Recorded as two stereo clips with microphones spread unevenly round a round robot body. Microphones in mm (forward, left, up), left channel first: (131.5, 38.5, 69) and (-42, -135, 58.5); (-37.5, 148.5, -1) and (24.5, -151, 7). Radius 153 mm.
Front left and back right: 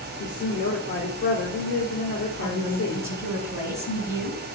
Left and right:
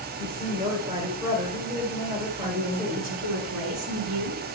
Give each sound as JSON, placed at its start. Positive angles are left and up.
{"t": 0.2, "sound": "a woman speaking", "azimuth_deg": -5, "distance_m": 2.5}
{"t": 2.4, "sound": "a woman speaking", "azimuth_deg": -55, "distance_m": 5.0}